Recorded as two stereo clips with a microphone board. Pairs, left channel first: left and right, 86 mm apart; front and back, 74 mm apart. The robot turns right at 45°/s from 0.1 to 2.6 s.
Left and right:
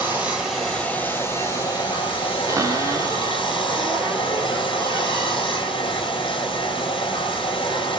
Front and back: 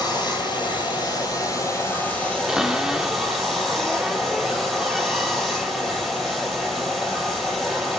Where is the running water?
20° right, 9 m; by 8.0 s 90° left, 9 m.